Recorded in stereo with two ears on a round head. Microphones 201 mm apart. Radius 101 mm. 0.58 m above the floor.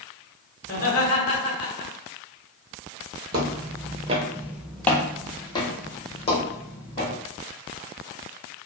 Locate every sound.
0.6 s laughter: 35° left (ahead or behind), 1.5 m
3.3 s footsteps: 45° right (ahead or behind), 0.9 m; by 7.1 s 30° left (ahead or behind), 2.5 m